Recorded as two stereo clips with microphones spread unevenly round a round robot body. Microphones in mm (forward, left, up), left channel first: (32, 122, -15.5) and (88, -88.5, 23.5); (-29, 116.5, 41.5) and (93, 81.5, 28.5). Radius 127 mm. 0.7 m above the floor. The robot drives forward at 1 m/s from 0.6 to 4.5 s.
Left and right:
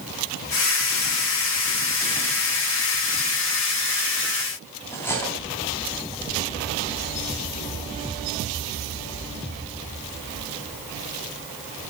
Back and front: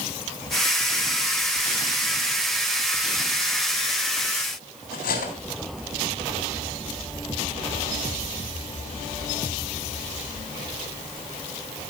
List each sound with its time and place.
4.9 s cutlery clinking: 175° right, 3 m